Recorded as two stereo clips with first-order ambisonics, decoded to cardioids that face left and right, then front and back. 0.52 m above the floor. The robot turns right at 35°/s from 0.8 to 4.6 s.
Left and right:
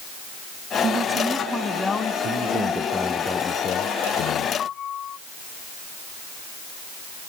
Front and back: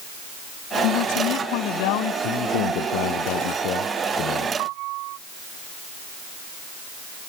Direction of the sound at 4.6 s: 150° left.